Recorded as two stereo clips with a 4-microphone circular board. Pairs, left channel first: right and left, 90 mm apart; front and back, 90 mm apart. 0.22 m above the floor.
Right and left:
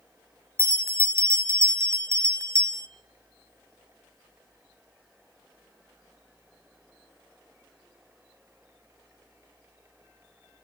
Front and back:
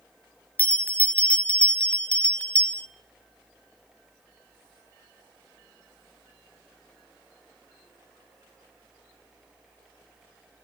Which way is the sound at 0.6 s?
65° left.